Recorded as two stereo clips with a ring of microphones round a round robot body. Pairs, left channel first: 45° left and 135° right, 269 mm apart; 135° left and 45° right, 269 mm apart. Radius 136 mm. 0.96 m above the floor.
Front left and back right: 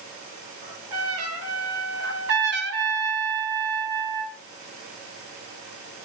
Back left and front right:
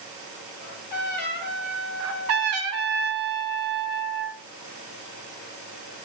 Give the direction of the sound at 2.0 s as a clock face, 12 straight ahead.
3 o'clock.